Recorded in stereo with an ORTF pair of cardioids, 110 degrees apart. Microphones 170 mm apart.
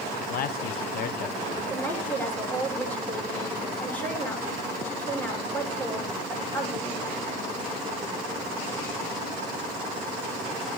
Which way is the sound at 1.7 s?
10° left.